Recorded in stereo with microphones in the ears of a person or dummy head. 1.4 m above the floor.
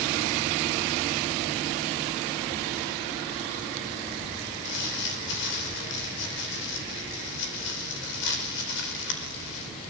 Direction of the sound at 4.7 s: 60° left (ahead or behind).